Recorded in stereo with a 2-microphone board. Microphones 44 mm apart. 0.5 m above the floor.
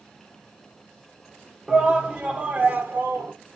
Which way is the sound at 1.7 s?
20° right (ahead or behind).